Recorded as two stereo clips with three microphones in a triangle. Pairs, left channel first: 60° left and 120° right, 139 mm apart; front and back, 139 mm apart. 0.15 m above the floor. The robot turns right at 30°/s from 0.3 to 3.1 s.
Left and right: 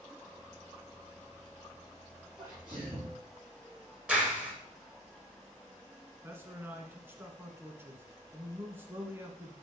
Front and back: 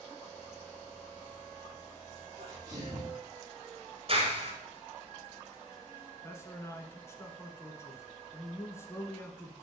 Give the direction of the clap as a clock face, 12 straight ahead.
7 o'clock.